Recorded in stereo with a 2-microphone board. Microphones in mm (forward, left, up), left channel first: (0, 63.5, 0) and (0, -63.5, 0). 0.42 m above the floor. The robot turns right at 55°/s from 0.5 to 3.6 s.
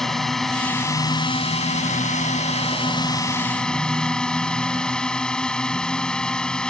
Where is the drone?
5° left; by 6.7 s 175° left.